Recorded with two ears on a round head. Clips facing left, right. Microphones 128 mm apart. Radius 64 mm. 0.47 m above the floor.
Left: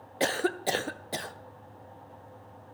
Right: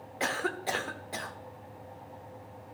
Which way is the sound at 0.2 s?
35° left (ahead or behind).